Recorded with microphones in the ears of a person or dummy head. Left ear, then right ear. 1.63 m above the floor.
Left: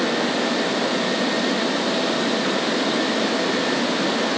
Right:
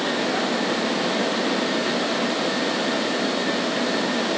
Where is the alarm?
No alarm in this recording.